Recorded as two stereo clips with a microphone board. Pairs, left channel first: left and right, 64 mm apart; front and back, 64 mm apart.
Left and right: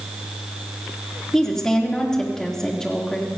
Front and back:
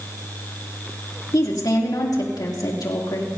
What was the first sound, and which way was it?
A woman speaking, 10° left.